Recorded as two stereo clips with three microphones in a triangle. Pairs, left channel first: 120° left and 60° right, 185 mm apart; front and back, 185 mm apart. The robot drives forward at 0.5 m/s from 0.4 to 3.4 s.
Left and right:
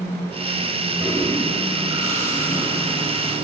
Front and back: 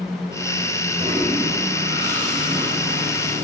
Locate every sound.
1.0 s a toilet flushing: 130° right, 4 m; by 3.4 s 140° right, 5 m